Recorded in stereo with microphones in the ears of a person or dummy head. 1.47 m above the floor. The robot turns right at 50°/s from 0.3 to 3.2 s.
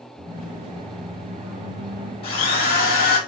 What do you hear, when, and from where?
0.2 s a squeak: 170° right, 2.0 m; by 2.1 s 80° right, 2.0 m
2.2 s a drill: 35° left, 3.5 m; by 3.2 s 85° left, 3.5 m